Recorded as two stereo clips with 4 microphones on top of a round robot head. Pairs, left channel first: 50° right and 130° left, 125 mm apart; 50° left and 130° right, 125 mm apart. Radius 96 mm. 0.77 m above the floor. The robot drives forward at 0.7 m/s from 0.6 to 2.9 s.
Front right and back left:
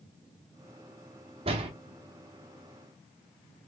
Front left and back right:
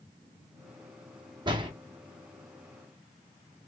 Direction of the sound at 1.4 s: 175° left.